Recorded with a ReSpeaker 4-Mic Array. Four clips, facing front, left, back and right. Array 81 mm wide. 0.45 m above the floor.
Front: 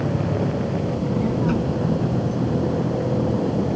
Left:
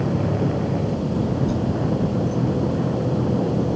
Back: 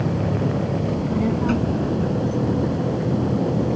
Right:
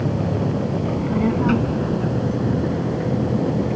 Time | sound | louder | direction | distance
0.8 | a child speaking | right 3 dB, back 1 dB | 100° right | ?